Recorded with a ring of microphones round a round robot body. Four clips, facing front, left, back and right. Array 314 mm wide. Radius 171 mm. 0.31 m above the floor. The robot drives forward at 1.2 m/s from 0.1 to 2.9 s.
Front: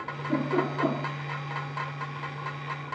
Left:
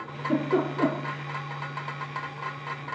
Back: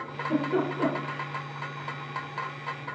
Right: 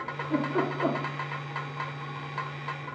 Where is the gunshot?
I don't hear a gunshot.